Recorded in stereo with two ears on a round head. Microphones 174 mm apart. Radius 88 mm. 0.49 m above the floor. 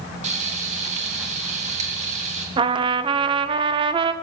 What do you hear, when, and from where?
0.2 s frying: 40° right (ahead or behind), 3 m
2.6 s a trumpet: 25° right (ahead or behind), 0.7 m